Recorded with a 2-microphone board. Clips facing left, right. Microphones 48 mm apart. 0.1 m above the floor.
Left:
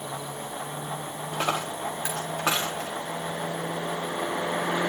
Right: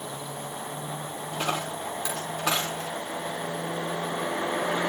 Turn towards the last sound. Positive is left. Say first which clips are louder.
# left 2 dB
turn(degrees=35)  # may be behind; listen again after turning